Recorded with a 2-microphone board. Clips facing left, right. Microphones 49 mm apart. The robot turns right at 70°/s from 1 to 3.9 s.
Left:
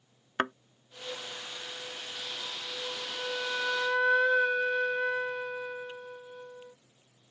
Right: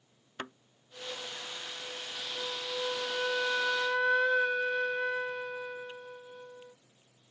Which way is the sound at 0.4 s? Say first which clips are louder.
Left 11 dB; 55° left (ahead or behind).